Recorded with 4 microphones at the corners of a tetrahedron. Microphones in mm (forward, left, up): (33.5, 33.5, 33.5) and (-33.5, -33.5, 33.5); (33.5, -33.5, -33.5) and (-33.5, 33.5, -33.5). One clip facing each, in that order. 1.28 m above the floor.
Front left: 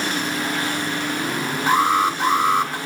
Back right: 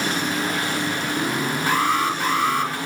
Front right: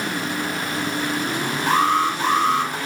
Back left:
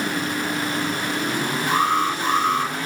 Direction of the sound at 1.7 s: 25° right.